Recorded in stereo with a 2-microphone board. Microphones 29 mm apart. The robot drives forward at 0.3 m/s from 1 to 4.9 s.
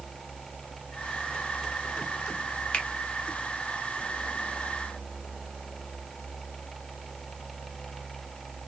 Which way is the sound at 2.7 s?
45° left (ahead or behind).